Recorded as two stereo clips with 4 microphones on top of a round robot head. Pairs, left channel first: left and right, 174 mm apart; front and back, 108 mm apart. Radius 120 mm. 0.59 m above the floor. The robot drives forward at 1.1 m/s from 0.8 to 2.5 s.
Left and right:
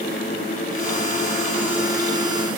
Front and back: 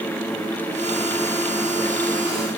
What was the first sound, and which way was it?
Only background noise.